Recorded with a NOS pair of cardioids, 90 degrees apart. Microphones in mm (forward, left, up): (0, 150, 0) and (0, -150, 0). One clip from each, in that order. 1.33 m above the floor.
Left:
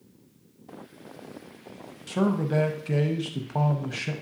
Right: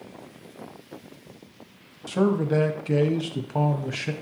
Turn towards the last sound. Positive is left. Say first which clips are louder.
# right 4 dB
turn(degrees=-5)